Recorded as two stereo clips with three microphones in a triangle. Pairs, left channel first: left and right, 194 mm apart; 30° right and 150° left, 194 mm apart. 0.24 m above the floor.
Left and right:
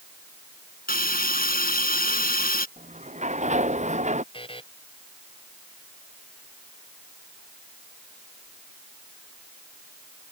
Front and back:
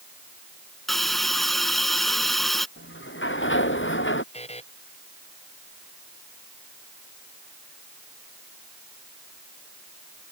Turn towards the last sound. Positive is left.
turn(degrees=30)